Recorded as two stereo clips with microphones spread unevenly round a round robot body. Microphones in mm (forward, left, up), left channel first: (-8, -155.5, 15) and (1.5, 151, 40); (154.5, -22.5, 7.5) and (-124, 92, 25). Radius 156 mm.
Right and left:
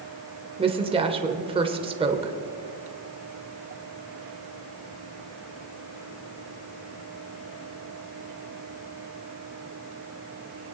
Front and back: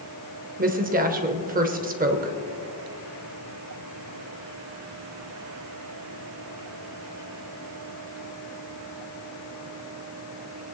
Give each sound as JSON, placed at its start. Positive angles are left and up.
{"t": 0.6, "sound": "a woman speaking", "azimuth_deg": 145, "distance_m": 0.9}